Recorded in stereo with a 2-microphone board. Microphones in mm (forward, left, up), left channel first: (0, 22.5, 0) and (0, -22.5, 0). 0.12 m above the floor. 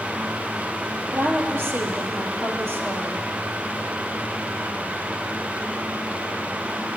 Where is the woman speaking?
60° right (ahead or behind), 3 m.